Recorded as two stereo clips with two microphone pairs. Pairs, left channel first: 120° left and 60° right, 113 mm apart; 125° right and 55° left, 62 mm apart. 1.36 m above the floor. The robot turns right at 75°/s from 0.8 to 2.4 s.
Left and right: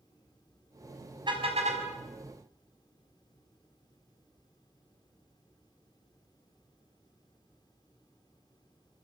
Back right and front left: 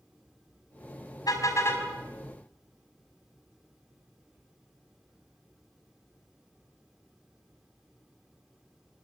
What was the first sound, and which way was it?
A car horn, 105° right.